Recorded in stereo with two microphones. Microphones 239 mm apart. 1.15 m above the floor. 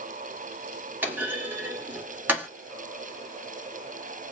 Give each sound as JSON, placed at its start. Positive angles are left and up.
{"t": 1.0, "sound": "a clunk", "side_deg": -10, "distance_m": 1.7}